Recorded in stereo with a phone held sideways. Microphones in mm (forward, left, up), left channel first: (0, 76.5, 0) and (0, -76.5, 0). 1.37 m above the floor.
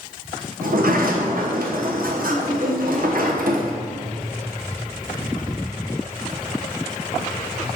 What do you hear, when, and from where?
0.6 s a sliding door: 65° right (ahead or behind), 1.0 m